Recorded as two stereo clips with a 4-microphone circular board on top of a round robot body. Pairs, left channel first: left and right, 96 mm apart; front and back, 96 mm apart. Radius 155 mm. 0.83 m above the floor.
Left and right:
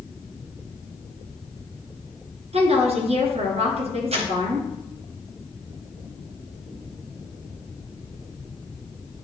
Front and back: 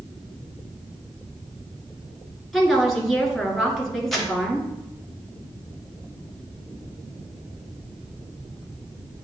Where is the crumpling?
90° right, 0.9 m.